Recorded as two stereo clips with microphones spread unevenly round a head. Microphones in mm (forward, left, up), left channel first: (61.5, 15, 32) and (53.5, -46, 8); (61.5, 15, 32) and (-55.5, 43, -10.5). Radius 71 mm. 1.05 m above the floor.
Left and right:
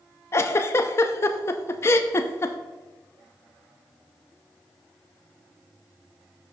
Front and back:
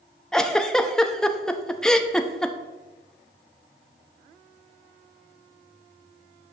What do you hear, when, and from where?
0.3 s a giggle: 60° left, 0.5 m